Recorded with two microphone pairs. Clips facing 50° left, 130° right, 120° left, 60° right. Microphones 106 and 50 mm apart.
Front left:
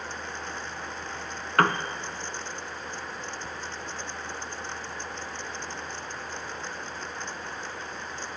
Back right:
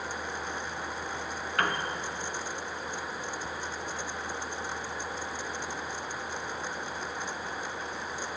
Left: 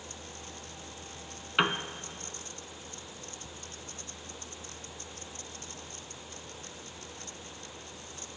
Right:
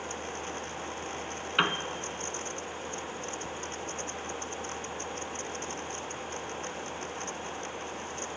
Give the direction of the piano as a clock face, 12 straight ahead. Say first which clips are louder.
Front left 7 dB, even; 11 o'clock.